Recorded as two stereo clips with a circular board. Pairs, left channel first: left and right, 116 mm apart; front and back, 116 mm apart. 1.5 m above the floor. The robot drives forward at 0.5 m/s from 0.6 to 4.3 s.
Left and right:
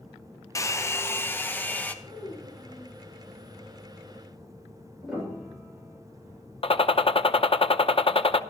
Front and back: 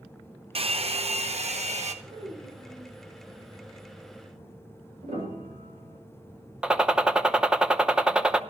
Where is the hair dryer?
150° left, 0.7 m; by 1.9 s 165° left, 1.3 m.